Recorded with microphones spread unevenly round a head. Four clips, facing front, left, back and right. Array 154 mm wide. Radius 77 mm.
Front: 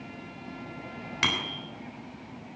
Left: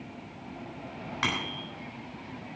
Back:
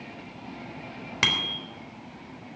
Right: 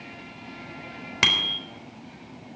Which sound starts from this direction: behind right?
A bicycle bell, at 1.2 s.